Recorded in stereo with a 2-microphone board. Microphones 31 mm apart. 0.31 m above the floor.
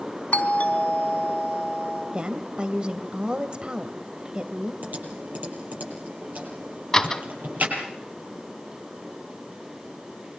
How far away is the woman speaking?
About 1.5 m.